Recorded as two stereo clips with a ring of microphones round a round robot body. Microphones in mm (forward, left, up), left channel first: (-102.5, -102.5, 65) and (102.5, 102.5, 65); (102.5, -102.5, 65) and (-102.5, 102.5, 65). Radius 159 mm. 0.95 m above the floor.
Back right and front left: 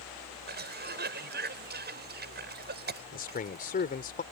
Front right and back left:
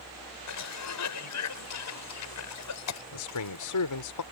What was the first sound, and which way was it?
A cough, 10° right.